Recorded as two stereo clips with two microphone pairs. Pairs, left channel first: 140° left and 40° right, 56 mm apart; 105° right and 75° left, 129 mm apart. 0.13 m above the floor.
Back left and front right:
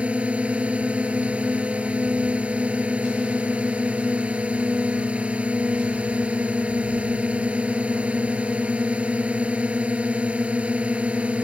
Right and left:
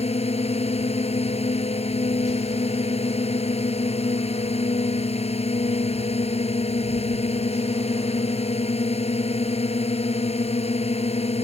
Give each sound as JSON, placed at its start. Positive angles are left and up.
{"t": 0.0, "sound": "a drone", "azimuth_deg": -100}